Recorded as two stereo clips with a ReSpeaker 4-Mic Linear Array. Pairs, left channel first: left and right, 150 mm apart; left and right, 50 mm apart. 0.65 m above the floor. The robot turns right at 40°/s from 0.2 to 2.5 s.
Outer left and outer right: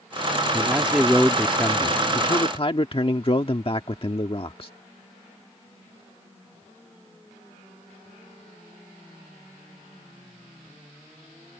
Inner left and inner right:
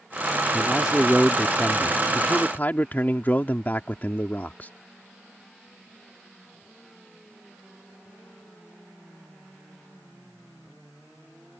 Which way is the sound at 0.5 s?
25° right.